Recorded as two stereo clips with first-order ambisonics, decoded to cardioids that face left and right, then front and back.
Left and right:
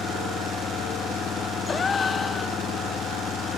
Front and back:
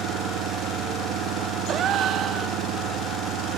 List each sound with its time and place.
0.0 s an engine running: 150° left
1.7 s a gasp: 150° left